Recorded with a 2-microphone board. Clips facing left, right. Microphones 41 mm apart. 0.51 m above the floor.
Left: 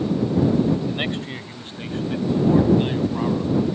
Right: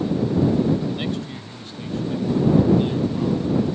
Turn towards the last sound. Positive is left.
turn(degrees=35)  # may be behind; listen again after turning